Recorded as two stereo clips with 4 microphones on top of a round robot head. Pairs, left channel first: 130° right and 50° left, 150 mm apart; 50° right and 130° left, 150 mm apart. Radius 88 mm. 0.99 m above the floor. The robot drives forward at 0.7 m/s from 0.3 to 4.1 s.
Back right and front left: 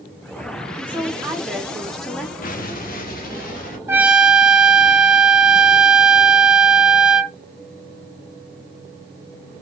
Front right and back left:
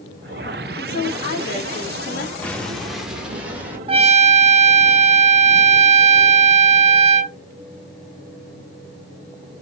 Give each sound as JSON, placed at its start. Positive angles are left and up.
{"t": 0.8, "sound": "a woman speaking", "azimuth_deg": -30, "distance_m": 2.5}
{"t": 2.4, "sound": "an explosion", "azimuth_deg": -130, "distance_m": 1.2}
{"t": 3.9, "sound": "a trumpet", "azimuth_deg": 115, "distance_m": 0.6}